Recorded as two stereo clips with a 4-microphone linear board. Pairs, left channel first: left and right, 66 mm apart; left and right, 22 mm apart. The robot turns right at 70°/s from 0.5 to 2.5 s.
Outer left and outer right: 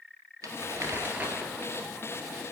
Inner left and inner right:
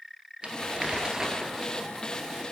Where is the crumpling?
80° right, 1.5 m; by 1.5 s 10° right, 1.5 m.